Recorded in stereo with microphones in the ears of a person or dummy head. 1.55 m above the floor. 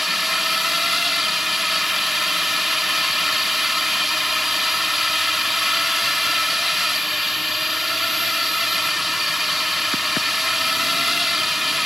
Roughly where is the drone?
Centre.